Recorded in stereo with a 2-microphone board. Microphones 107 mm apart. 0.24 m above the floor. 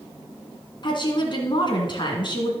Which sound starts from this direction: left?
A woman speaking, at 0.8 s.